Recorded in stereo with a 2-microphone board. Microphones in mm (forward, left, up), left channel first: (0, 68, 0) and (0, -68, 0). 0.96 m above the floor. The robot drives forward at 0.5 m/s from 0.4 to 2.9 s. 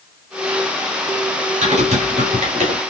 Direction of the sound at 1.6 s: 60° right (ahead or behind).